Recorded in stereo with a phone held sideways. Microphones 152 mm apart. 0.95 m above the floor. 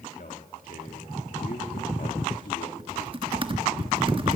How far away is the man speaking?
About 1.9 m.